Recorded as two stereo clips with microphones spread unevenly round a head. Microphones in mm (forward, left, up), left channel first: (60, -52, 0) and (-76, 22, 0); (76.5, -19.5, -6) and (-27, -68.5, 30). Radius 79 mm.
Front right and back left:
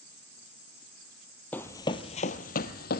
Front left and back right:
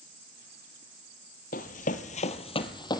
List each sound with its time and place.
1.5 s running footsteps: 50° left, 1.5 m; by 3.0 s 40° right, 1.9 m